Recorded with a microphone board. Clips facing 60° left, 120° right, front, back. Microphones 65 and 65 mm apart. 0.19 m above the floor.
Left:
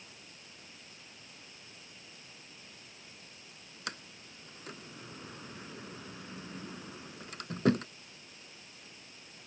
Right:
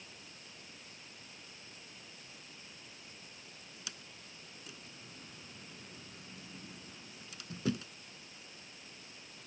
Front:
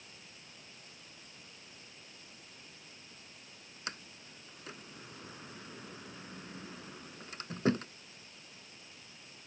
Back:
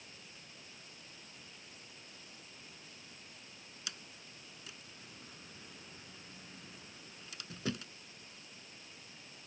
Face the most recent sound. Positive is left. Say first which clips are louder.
# left 11 dB, front 6 dB
turn(degrees=40)